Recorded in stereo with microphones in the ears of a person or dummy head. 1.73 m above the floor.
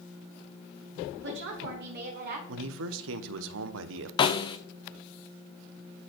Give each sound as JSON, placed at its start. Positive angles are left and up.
{"t": 1.2, "sound": "a woman speaking", "side_deg": -60, "distance_m": 3.0}
{"t": 2.5, "sound": "a man speaking", "side_deg": -75, "distance_m": 1.1}
{"t": 4.2, "sound": "a snare drum", "side_deg": 25, "distance_m": 0.7}